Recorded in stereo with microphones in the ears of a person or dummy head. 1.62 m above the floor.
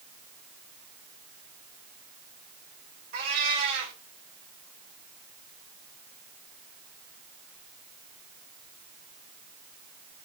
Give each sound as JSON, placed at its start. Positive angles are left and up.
{"t": 3.1, "sound": "a cat meowing", "side_deg": -50, "distance_m": 3.0}